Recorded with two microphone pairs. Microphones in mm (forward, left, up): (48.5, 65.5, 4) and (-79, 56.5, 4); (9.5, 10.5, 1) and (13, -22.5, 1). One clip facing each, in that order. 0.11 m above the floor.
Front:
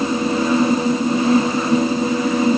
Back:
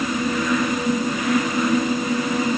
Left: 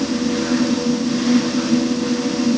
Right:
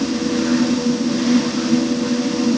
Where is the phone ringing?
I don't hear a phone ringing.